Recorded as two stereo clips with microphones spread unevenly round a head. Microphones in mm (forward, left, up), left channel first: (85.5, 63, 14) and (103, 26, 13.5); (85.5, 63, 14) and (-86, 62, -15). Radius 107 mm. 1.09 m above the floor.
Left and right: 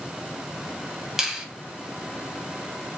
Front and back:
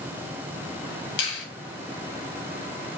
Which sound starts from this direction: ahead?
A finger snap, at 1.2 s.